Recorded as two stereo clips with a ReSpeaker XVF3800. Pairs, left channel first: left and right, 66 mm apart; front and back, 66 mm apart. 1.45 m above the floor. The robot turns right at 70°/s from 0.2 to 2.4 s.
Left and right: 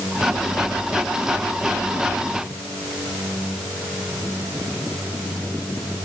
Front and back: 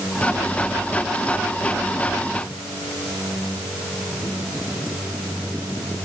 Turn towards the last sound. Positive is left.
No sound to turn to.